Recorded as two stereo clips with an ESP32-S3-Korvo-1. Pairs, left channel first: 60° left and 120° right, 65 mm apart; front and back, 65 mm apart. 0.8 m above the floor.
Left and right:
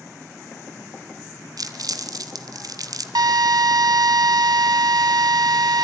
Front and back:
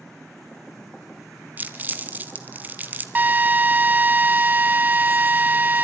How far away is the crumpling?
About 1.4 m.